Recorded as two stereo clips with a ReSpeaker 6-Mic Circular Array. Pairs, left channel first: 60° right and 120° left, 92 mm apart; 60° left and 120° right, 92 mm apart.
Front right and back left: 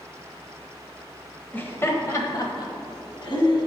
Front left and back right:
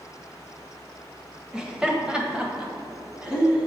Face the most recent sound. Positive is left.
turn(degrees=-40)